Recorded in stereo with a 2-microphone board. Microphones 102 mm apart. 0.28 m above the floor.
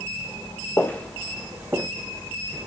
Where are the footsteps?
20° left (ahead or behind), 1.7 m; by 1.9 s 30° right (ahead or behind), 1.3 m.